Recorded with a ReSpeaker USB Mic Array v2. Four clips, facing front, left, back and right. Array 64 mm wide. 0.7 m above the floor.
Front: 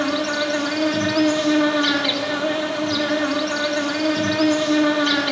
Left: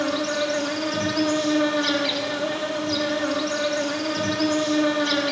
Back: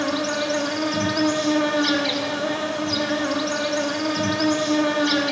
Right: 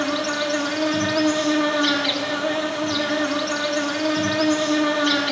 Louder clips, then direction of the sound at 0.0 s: Right 1 dB, front 2 dB; 15° right.